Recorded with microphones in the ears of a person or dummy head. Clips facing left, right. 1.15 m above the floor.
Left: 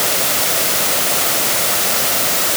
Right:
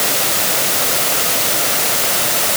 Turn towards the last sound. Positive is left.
No sound to turn to.